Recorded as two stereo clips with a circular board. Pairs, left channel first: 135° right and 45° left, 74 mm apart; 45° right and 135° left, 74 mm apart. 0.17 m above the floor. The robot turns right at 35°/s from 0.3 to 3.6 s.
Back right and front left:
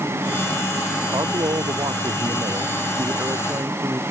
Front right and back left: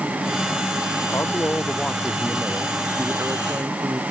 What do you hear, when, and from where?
1.1 s a man speaking: 10° left; by 4.0 s 95° left